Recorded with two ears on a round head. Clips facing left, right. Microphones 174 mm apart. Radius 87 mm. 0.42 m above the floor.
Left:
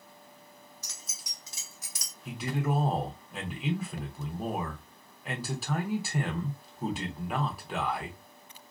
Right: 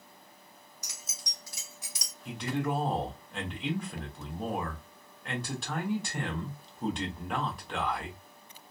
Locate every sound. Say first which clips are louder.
0.8 s keys jangling: right 1 dB; 15° right (ahead or behind), 0.7 m; by 2.1 s 50° left (ahead or behind), 0.8 m
2.2 s a man speaking: even; 5° left (ahead or behind), 0.7 m